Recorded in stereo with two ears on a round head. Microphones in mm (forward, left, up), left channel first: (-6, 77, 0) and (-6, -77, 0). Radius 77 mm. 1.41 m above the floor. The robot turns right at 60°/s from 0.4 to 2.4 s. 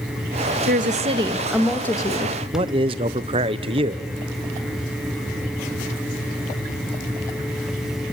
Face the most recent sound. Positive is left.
turn(degrees=-35)  # may be behind; listen again after turning